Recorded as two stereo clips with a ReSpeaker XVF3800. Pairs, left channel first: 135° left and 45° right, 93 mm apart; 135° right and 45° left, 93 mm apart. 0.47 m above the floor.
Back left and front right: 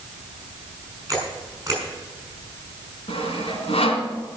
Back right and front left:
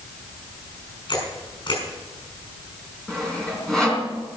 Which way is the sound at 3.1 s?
140° left.